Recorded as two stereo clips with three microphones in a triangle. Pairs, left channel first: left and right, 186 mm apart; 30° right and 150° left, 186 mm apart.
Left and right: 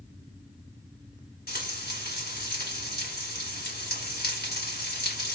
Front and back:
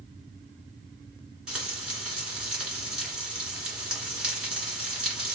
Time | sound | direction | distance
1.5 | frying | 65° left | 2.5 m